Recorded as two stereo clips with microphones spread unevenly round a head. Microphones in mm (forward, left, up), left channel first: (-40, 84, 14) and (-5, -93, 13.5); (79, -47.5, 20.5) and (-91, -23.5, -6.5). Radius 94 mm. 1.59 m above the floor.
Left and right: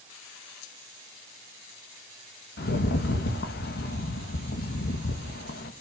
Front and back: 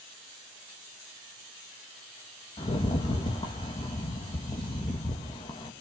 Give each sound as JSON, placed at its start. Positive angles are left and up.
{"t": 2.6, "sound": "a rattle", "azimuth_deg": 60, "distance_m": 2.0}